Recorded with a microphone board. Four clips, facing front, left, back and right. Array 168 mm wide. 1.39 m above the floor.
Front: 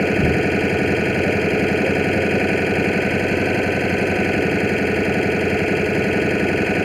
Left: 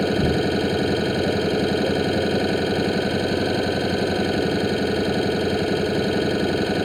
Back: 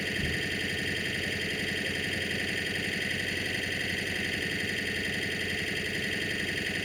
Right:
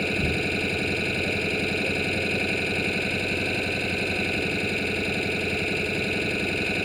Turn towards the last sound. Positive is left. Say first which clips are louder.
# left 7 dB, front 17 dB
turn(degrees=30)